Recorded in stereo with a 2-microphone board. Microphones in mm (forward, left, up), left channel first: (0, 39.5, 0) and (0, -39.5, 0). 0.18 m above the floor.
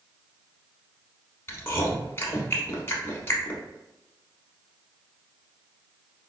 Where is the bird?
No bird in this recording.